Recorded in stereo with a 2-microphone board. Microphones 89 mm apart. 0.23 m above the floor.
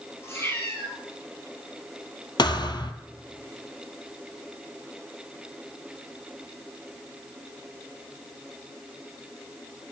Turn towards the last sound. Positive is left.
turn(degrees=55)  # may be behind; listen again after turning